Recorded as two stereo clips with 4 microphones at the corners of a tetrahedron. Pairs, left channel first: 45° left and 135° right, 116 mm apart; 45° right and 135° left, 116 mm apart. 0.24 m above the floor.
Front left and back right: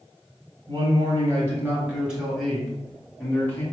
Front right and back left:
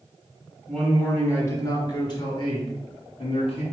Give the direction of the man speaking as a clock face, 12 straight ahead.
4 o'clock.